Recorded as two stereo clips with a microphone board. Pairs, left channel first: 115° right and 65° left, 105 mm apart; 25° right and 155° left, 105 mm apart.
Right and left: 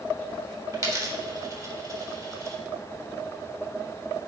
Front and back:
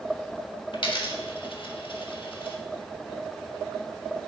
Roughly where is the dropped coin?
Ahead.